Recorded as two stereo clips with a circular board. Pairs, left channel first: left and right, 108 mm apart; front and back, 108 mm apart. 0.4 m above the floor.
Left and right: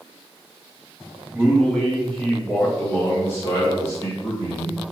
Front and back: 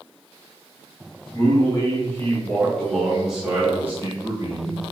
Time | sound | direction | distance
1.3 | a man speaking | 5° right | 1.7 m